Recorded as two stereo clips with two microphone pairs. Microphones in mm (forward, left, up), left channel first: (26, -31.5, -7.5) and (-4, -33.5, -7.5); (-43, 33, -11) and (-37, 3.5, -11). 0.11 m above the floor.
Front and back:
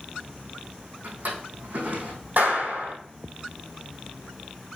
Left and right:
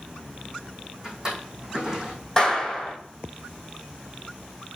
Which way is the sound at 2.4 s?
175° left.